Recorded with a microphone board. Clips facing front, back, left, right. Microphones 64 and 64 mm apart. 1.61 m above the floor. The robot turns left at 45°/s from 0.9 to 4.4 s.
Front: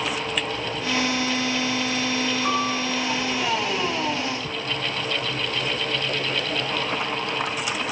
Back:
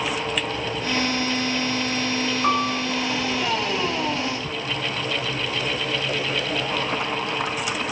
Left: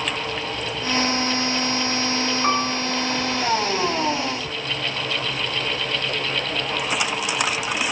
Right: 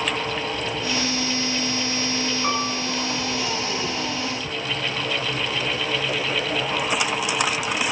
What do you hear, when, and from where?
2.4 s a piano: 155° left, 6.5 m; by 2.9 s 140° left, 6.5 m